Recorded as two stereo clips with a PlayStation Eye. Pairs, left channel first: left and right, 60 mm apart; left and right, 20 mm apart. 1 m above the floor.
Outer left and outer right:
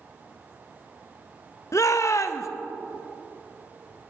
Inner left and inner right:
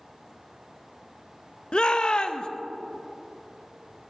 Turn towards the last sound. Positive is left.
turn(degrees=60)  # may be behind; listen again after turning